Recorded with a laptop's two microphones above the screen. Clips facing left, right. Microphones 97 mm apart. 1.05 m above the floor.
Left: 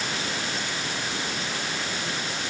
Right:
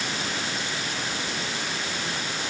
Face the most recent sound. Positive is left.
No sound to turn to.